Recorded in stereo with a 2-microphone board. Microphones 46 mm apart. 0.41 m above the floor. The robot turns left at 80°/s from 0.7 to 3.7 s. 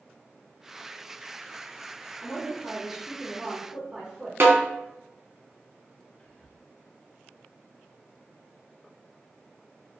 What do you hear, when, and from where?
2.2 s a woman speaking: 5° left (ahead or behind), 0.9 m; by 4.3 s 25° right (ahead or behind), 0.9 m
4.4 s a snare drum: 60° right (ahead or behind), 0.7 m
6.2 s whispering: 35° left (ahead or behind), 1.3 m